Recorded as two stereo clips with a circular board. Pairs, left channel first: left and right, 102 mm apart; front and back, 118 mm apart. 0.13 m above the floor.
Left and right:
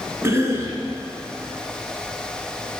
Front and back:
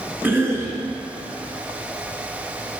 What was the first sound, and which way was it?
A cough, 125° right.